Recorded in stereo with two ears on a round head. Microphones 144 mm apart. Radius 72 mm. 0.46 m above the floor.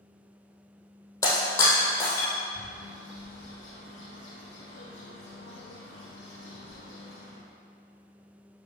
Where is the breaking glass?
20° left (ahead or behind), 3 m.